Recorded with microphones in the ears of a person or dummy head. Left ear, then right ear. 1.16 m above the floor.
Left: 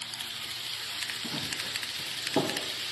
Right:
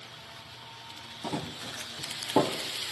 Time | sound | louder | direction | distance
1.2 | running footsteps | left 3 dB | 40° right (ahead or behind) | 2 m